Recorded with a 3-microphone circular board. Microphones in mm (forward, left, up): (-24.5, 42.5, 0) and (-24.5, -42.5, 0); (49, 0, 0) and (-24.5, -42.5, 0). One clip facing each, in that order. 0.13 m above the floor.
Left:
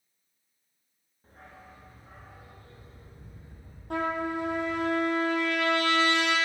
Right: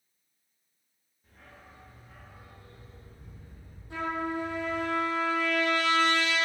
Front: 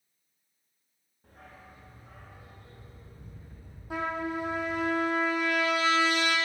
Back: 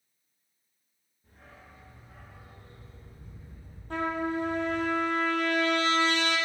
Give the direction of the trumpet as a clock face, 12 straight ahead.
8 o'clock.